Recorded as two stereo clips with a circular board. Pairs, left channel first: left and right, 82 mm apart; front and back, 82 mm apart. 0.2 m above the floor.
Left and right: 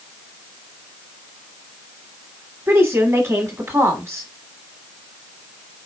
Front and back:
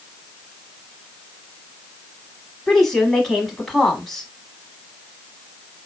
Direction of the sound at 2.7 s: 80° right.